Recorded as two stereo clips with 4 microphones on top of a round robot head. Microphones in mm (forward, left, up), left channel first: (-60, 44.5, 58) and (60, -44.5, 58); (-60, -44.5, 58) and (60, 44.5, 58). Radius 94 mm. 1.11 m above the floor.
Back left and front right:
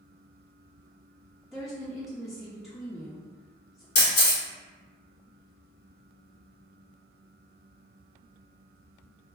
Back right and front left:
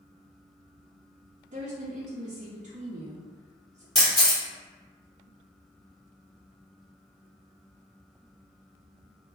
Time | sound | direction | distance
1.5 | a woman speaking | 55° left | 0.5 m
4.0 | a camera shutter | 130° left | 1.0 m